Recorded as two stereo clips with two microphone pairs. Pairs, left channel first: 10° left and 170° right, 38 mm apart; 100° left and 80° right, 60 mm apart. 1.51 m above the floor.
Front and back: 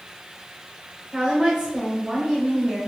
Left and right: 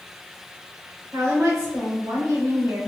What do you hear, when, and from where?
1.1 s a woman speaking: 100° right, 1.5 m